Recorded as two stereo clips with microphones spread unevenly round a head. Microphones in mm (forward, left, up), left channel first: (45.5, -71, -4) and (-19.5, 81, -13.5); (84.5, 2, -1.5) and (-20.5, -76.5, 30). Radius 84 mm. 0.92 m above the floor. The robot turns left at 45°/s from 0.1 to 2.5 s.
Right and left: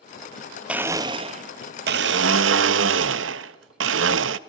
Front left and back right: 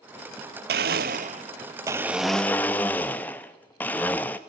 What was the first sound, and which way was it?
A blender, 165° right.